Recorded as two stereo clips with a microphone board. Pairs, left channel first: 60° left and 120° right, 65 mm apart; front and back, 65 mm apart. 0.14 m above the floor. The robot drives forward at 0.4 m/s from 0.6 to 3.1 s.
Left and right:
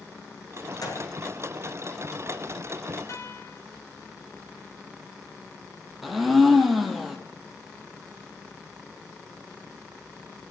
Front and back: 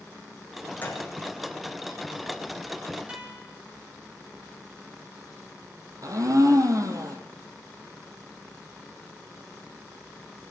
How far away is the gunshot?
About 5.5 m.